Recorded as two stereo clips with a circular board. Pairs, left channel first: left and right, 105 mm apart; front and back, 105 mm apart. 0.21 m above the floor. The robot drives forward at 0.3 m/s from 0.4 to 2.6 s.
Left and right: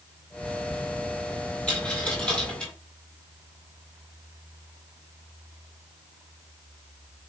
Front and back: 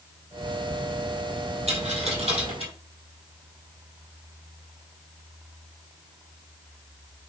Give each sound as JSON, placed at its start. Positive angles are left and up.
{"t": 1.7, "sound": "a dropped coin", "azimuth_deg": 170, "distance_m": 1.4}